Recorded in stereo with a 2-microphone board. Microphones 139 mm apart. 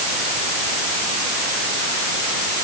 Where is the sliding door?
I don't hear a sliding door.